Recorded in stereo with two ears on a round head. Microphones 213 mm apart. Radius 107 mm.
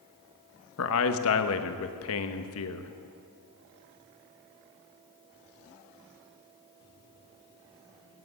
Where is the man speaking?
65° left (ahead or behind), 1.0 m.